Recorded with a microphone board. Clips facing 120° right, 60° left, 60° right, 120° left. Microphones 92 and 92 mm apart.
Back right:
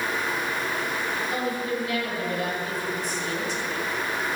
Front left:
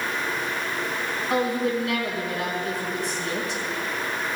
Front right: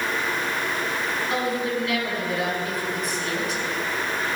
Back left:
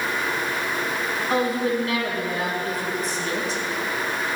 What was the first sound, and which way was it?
A woman speaking, 70° left.